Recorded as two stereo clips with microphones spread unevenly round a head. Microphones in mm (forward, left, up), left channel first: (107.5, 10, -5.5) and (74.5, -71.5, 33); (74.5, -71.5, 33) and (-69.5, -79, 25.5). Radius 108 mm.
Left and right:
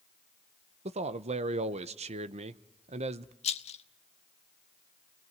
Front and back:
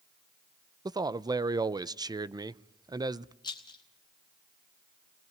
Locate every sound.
0.8 s a man speaking: 115° right, 0.8 m
3.4 s a rattle: 75° left, 0.9 m